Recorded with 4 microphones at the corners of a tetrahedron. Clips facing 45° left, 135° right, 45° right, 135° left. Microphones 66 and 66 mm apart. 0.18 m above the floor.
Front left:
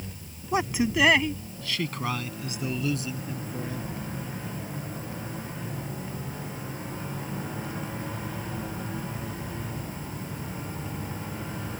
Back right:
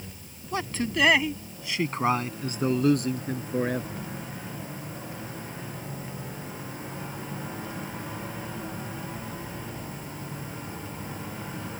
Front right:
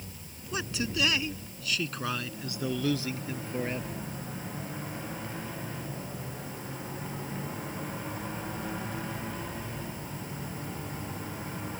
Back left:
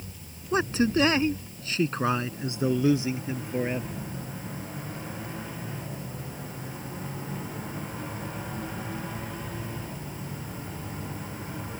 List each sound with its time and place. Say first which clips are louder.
0.5 s a man speaking: front left 4 dB, back left 9 dB; 105° left; by 4.1 s 150° right